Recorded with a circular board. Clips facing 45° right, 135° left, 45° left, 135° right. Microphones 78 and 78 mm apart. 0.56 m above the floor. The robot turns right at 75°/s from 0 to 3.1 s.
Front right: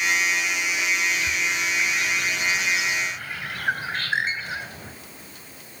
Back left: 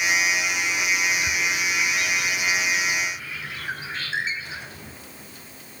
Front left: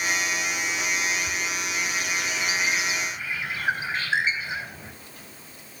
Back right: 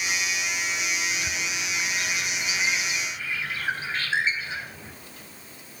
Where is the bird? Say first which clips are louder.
Back left 1 dB, front left 2 dB; straight behind, 4 m; by 4.9 s 30° right, 4 m.